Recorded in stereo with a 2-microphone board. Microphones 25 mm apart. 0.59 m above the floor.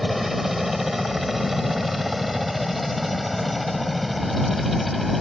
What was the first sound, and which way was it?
A helicopter, 10° right (ahead or behind).